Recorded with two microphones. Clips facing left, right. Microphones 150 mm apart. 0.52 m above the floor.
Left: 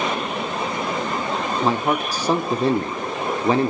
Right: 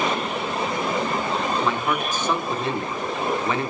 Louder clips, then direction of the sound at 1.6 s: Left 3 dB; 35° left (ahead or behind).